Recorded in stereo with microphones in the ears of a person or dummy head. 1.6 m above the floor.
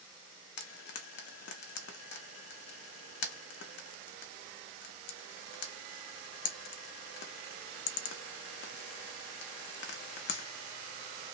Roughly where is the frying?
Left.